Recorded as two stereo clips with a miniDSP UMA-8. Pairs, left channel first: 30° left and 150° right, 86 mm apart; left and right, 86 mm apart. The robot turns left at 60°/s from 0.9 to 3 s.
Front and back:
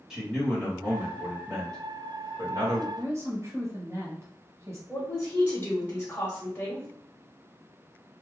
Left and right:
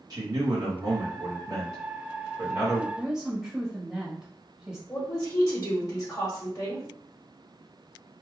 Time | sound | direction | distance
0.1 | a man speaking | 65° right | 1.8 m
3.0 | a woman speaking | 165° right | 1.0 m
4.9 | a woman speaking | 85° left | 1.0 m